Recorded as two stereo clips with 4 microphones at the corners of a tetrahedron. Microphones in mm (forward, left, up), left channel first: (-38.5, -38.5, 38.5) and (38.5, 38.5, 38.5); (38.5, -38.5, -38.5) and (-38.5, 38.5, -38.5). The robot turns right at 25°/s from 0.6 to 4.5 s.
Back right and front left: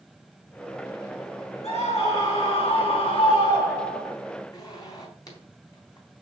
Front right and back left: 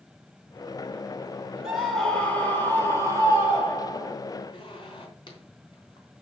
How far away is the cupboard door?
I don't hear a cupboard door.